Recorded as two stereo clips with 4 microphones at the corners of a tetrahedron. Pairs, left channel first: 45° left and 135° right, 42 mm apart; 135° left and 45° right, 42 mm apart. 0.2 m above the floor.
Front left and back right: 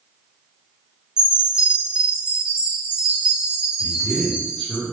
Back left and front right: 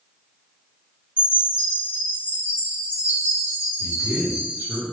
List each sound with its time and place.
1.2 s a chime: 70° right, 1.9 m
3.8 s a man speaking: 20° right, 1.8 m